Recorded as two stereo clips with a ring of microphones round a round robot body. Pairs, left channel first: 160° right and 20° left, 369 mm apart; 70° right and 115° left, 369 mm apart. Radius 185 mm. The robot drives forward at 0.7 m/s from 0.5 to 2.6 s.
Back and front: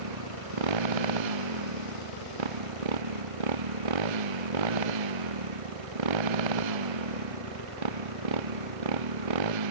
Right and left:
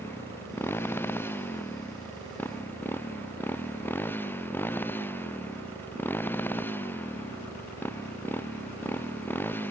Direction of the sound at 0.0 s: 15° left.